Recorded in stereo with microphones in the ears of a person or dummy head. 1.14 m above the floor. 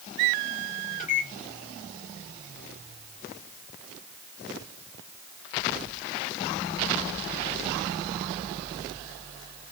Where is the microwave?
40° left (ahead or behind), 1.7 m.